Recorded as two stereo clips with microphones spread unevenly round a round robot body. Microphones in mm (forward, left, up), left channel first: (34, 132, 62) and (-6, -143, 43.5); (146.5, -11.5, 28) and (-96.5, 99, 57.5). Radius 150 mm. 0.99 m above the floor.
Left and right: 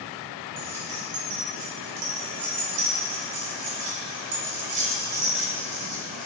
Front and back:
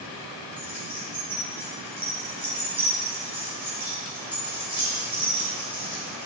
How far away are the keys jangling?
About 2.5 m.